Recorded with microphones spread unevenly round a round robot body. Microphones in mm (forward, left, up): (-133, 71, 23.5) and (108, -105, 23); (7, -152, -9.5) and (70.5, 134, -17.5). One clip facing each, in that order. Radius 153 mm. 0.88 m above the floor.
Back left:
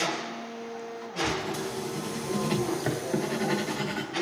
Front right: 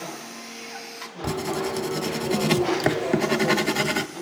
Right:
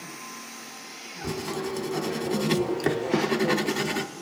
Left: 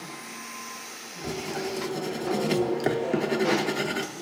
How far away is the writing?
About 0.5 m.